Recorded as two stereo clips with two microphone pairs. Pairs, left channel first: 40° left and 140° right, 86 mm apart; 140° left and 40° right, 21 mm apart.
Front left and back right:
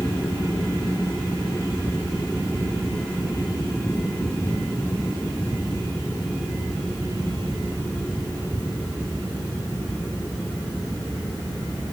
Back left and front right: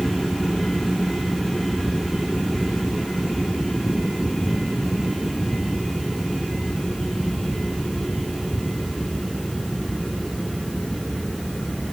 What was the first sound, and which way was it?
Only background noise.